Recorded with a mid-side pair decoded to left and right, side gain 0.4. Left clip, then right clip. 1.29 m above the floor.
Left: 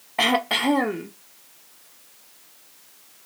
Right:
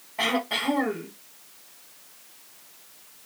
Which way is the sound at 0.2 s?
70° left.